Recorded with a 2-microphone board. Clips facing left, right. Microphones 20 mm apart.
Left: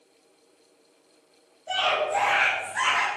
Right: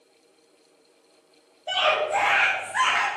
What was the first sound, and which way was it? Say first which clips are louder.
A scream: right 2 dB; 55° right (ahead or behind).